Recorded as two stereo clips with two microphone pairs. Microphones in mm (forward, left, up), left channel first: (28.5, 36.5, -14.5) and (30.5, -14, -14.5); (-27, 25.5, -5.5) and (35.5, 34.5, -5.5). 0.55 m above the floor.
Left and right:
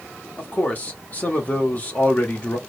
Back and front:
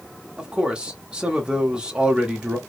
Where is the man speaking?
75° left, 1.4 m.